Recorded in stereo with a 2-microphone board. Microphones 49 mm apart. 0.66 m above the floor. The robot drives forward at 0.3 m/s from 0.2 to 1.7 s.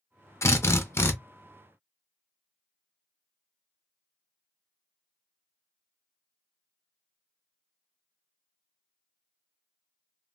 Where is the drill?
75° left (ahead or behind), 0.5 m; by 1.1 s 60° left (ahead or behind), 0.6 m.